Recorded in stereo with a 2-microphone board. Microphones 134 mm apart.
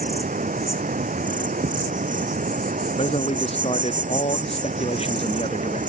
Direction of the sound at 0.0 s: 80° right.